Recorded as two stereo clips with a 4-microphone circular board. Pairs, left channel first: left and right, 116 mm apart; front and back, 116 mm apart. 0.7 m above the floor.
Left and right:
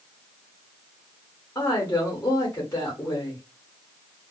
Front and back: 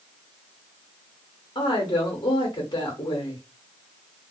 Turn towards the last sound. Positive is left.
turn(degrees=40)